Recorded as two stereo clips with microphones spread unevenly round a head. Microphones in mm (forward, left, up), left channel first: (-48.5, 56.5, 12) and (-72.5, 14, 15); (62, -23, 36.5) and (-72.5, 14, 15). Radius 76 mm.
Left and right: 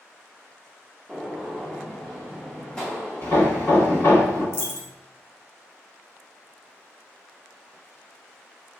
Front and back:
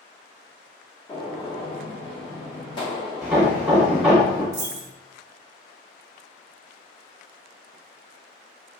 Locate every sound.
1.1 s a gunshot: 20° right, 0.6 m
3.2 s hammering: 75° left, 1.2 m
4.5 s a dropped coin: 85° left, 0.6 m